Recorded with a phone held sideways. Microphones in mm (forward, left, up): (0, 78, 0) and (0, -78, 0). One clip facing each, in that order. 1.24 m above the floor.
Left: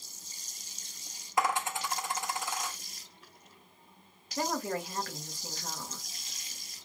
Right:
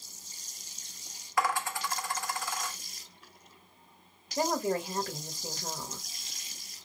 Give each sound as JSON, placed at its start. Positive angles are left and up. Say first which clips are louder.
{"t": 1.4, "sound": "a dropped coin", "louder": "even", "side_deg": 20, "distance_m": 0.6}
{"t": 4.4, "sound": "a woman speaking", "louder": "right 4 dB", "side_deg": -25, "distance_m": 0.9}